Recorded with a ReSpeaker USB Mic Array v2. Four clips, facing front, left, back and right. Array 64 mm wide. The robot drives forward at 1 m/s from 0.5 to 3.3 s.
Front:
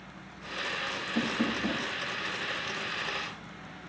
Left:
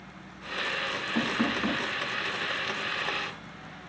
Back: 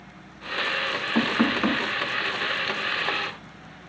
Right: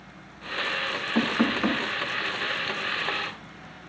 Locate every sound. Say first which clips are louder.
1.1 s knocking: right 4 dB, back 8 dB; 155° right, 1.8 m; by 1.9 s 165° right, 2.5 m